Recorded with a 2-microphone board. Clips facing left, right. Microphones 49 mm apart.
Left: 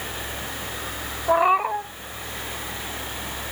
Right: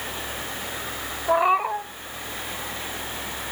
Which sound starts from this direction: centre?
A cat meowing, at 1.3 s.